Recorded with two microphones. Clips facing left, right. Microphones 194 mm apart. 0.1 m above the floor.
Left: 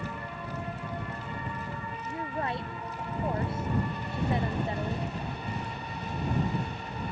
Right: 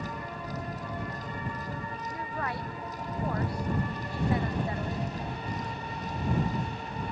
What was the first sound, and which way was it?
A woman speaking, 25° left (ahead or behind).